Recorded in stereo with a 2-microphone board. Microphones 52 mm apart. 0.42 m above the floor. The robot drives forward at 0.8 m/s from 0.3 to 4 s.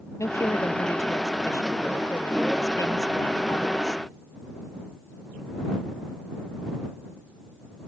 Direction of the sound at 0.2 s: 80° left.